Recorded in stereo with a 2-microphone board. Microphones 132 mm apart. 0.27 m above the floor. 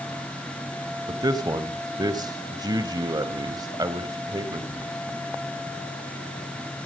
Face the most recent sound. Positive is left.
turn(degrees=-30)  # may be behind; listen again after turning